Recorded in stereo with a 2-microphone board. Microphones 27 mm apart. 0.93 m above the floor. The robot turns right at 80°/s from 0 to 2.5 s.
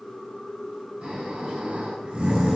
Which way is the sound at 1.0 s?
135° right.